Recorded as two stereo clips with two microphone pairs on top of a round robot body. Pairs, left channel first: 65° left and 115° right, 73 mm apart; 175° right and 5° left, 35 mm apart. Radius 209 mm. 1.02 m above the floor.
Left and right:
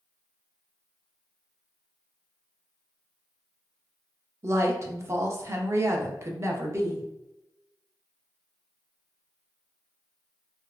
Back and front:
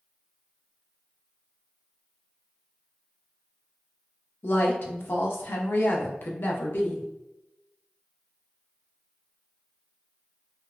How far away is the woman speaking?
About 0.8 m.